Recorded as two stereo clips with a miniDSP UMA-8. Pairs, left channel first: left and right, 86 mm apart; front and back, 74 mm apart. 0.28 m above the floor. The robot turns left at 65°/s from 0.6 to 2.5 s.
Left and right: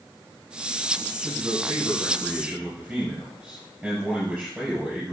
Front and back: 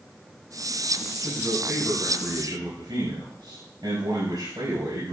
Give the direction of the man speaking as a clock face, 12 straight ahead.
3 o'clock.